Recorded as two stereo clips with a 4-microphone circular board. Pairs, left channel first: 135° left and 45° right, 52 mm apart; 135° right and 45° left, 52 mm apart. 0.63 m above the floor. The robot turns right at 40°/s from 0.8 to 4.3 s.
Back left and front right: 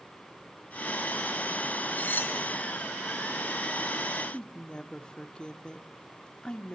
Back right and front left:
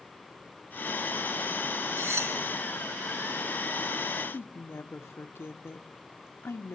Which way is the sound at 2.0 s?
75° left.